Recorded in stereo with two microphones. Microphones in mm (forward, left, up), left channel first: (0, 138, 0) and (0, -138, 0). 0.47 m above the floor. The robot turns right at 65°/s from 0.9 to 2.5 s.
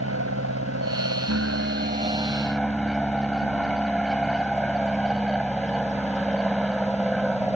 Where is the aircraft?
100° right; by 7.6 s straight ahead.